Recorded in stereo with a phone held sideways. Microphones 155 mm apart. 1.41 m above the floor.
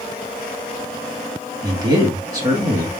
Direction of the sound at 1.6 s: 25° right (ahead or behind).